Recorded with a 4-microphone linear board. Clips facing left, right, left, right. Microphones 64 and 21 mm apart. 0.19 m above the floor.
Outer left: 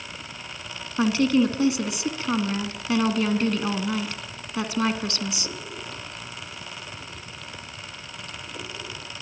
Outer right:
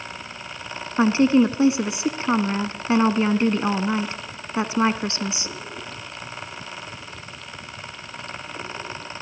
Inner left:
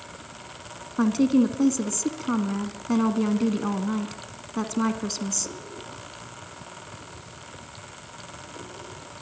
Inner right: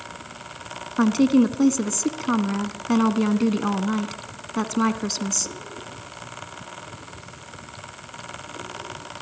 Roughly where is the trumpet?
No trumpet in this recording.